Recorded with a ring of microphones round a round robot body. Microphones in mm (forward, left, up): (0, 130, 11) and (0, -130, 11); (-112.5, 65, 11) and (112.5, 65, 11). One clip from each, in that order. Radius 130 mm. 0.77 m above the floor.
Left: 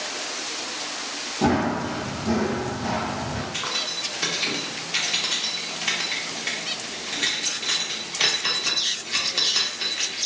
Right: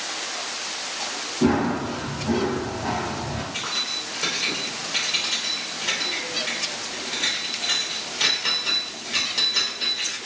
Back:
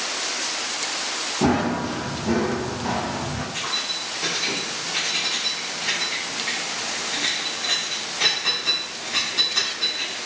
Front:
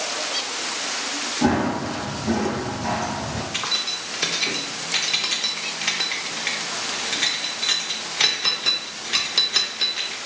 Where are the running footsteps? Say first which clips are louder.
Even, even; 160° left, 1.6 m; by 3.4 s 15° left, 0.8 m.